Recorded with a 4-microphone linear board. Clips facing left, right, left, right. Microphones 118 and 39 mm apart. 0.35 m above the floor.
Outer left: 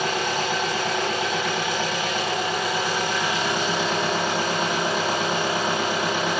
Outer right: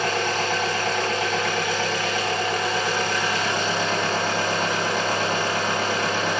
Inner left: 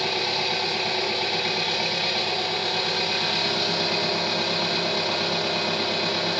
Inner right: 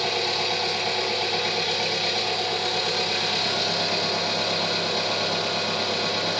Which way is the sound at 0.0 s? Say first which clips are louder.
Outer right 1 dB, even; 15° left (ahead or behind).